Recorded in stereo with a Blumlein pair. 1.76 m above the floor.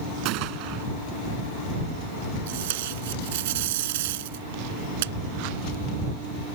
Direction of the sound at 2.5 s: 55° right.